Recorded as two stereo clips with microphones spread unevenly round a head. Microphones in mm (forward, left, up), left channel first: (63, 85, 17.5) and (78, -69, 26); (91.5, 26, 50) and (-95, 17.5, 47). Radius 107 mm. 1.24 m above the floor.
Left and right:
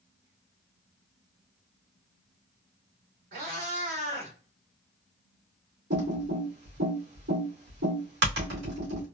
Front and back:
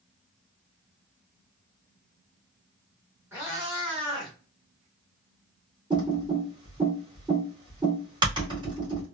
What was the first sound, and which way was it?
A cat meowing, 100° right.